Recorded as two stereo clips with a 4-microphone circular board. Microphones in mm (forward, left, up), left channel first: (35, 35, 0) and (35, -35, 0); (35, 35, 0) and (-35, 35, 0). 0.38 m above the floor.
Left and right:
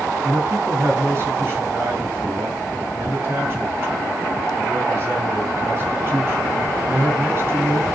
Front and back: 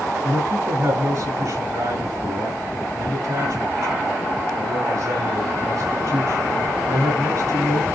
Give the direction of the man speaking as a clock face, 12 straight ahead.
5 o'clock.